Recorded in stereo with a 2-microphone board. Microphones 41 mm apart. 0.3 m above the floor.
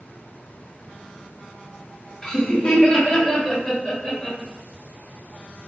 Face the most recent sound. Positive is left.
turn(degrees=15)  # may be behind; listen again after turning